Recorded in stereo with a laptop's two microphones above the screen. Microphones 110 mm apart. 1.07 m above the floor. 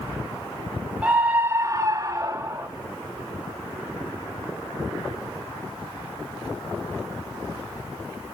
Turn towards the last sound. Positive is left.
turn(degrees=-20)  # may be behind; listen again after turning